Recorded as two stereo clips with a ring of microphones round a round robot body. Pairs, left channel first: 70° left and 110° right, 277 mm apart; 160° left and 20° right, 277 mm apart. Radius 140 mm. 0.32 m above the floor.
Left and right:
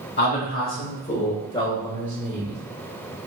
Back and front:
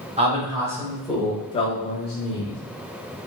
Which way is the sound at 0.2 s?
35° left.